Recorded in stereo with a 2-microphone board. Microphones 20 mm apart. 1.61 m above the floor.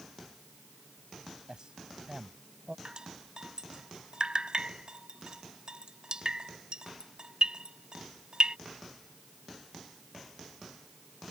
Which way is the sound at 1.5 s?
45° right (ahead or behind).